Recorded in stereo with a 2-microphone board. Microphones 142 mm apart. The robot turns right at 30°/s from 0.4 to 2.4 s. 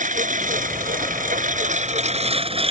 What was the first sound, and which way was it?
A lawn mower, 105° right.